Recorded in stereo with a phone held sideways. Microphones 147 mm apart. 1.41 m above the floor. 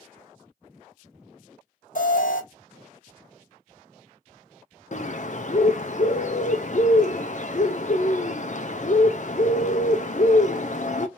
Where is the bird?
55° left (ahead or behind), 0.6 m.